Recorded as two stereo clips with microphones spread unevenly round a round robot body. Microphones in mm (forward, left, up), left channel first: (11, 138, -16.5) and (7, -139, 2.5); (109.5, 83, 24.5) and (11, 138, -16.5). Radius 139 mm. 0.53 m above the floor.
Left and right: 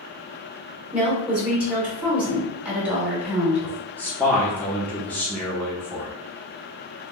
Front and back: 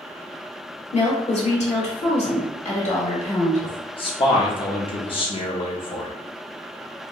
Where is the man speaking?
15° left, 0.9 m.